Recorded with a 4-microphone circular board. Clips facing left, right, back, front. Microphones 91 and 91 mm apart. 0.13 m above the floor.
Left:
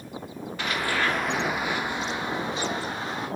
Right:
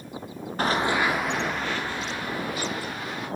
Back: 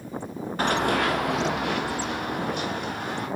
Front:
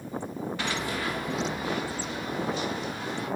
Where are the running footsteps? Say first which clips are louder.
Right 4 dB, back 10 dB; 135° right, 0.7 m; by 3.3 s 150° left, 3 m.